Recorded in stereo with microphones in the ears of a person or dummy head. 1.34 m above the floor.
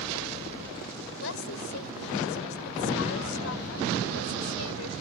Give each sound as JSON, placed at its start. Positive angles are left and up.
{"t": 1.2, "sound": "a woman speaking", "side_deg": 90}